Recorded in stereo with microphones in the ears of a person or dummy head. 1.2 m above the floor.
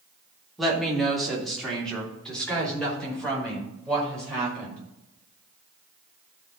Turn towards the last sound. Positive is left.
turn(degrees=10)  # may be behind; listen again after turning